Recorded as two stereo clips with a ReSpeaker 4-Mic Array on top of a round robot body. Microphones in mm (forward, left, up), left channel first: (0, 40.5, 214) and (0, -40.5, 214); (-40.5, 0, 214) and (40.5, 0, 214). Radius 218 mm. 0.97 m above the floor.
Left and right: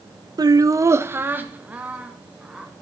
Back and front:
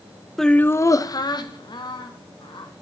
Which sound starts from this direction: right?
Laughter, at 0.4 s.